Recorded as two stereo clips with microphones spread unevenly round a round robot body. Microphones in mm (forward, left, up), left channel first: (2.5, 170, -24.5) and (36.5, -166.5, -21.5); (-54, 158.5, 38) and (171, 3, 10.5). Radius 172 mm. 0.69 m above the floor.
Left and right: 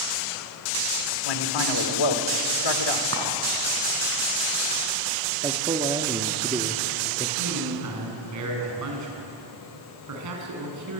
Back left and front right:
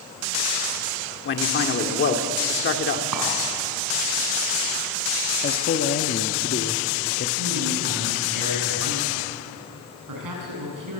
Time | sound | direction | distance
1.2 | a man speaking | 100° left | 2 m
3.1 | a clink | 30° right | 4.5 m
5.4 | a man speaking | 160° right | 1.1 m
7.4 | a man speaking | 45° right | 6 m